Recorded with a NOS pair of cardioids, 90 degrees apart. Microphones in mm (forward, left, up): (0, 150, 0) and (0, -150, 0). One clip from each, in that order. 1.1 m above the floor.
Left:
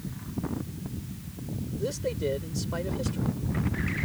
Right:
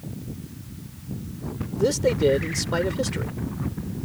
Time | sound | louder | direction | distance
1.8 | a man speaking | right 10 dB | 65° right | ?